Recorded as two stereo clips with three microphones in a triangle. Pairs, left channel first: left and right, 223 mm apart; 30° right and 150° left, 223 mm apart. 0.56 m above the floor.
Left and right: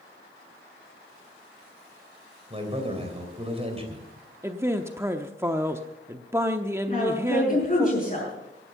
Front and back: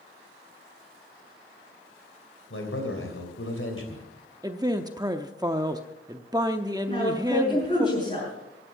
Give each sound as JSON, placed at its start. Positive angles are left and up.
{"t": 2.5, "sound": "a man speaking", "azimuth_deg": -30, "distance_m": 3.0}
{"t": 4.4, "sound": "a man speaking", "azimuth_deg": -155, "distance_m": 0.7}
{"t": 6.9, "sound": "a woman speaking", "azimuth_deg": 30, "distance_m": 7.5}